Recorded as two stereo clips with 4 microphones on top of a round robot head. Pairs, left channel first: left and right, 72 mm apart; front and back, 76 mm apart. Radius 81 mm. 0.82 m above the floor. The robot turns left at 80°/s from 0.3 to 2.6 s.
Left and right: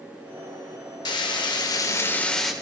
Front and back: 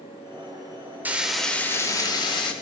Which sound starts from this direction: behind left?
Frying, at 1.1 s.